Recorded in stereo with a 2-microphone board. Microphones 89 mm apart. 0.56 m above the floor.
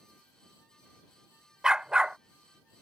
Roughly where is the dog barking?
Centre.